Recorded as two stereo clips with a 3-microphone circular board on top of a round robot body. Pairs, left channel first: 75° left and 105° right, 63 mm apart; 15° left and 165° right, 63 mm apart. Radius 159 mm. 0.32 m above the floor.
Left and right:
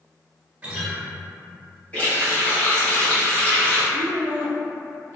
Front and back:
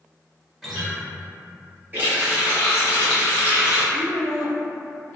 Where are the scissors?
I don't hear scissors.